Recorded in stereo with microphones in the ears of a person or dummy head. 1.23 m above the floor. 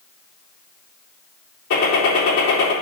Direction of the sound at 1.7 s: 65° left (ahead or behind).